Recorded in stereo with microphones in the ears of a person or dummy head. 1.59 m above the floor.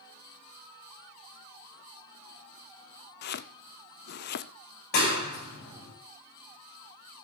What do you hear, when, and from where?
3.2 s chopping: 60° left (ahead or behind), 0.6 m
4.9 s a clap: 65° left (ahead or behind), 5.5 m